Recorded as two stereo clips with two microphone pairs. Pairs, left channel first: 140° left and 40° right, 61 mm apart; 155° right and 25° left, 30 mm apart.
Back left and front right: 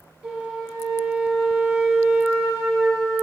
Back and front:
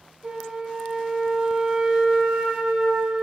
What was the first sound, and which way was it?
A flute, 30° left.